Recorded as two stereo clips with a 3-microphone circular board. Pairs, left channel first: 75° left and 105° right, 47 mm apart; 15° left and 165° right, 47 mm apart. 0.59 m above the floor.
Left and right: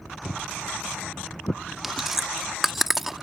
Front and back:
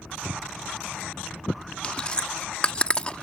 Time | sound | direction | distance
0.2 | footsteps | 85° left | ?
1.8 | chewing | 30° right | ?